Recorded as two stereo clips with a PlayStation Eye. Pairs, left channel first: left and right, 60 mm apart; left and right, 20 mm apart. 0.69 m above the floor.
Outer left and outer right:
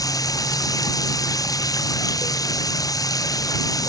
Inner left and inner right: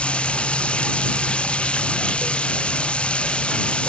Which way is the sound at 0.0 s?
85° left.